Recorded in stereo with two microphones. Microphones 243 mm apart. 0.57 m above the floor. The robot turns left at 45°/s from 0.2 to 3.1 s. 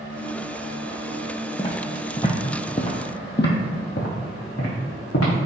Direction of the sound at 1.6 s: 20° left (ahead or behind).